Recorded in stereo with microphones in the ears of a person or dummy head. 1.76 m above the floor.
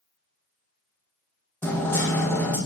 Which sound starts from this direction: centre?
Hammering, at 1.6 s.